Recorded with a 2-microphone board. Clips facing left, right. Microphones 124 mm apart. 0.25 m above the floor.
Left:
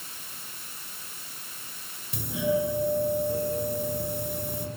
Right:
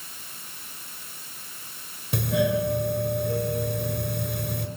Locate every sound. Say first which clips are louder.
2.1 s a doorbell: right 3 dB; 70° right (ahead or behind), 4 m